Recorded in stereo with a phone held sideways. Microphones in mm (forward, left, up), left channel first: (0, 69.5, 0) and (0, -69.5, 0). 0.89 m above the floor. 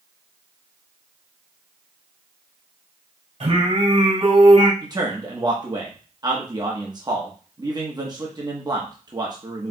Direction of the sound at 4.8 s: 30° right (ahead or behind).